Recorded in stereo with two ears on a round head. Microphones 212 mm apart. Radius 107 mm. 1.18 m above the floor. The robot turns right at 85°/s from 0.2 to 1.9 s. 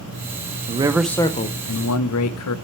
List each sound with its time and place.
0.7 s a man speaking: 30° right, 0.6 m; by 2.5 s 75° left, 0.6 m